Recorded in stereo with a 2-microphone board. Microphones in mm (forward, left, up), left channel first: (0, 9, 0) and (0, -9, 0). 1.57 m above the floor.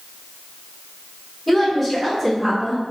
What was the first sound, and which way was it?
A woman speaking, centre (ahead or behind).